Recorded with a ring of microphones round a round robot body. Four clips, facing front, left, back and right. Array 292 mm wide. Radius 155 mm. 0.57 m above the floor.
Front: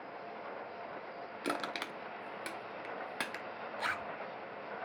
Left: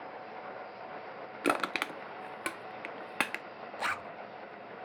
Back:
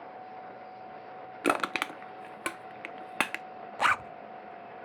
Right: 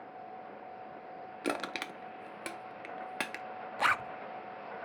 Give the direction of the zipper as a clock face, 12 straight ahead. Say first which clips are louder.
Right 6 dB, back 11 dB; 5 o'clock.